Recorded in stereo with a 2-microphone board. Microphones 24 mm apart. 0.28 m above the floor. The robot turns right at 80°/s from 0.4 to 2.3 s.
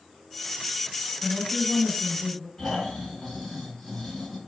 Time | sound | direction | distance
1.2 | a woman speaking | 20° left (ahead or behind) | 1.2 m
2.6 | snoring | 10° left (ahead or behind) | 1.9 m